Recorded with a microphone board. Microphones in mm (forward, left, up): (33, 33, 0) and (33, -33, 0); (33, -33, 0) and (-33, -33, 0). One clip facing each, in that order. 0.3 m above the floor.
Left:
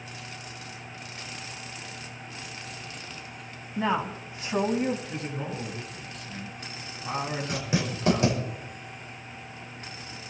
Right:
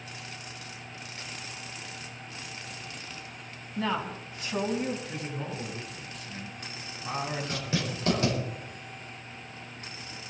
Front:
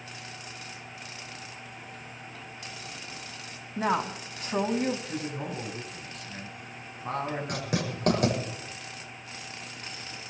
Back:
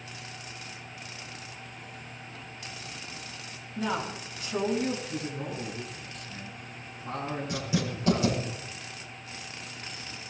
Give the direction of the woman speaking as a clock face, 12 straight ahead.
11 o'clock.